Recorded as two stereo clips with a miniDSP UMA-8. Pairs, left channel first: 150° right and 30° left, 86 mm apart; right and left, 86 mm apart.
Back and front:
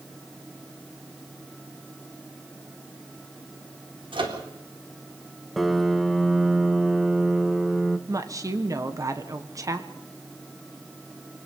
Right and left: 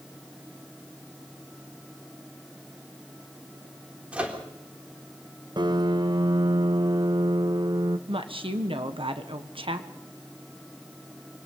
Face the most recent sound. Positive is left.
turn(degrees=80)